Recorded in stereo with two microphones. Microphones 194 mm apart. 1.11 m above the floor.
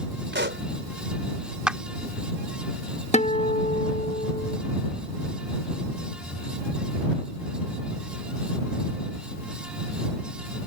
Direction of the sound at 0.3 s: 70° right (ahead or behind).